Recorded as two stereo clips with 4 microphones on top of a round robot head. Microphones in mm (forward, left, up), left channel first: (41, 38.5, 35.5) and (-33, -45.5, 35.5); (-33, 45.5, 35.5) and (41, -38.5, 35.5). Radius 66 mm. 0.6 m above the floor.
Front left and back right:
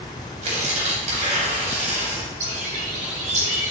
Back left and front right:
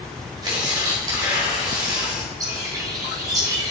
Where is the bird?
110° right, 2.5 m.